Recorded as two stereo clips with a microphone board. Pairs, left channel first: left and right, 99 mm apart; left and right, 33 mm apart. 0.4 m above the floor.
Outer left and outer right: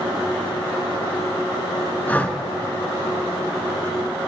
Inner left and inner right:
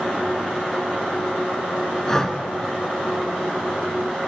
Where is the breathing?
15° left (ahead or behind), 1.3 m.